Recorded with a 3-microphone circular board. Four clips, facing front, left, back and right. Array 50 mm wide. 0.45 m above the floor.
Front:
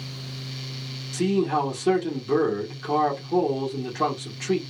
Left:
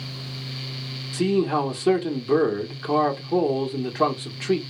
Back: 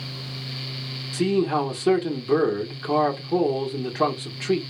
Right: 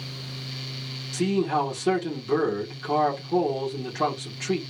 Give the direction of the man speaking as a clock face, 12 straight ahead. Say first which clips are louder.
Left 2 dB, back 1 dB; 7 o'clock.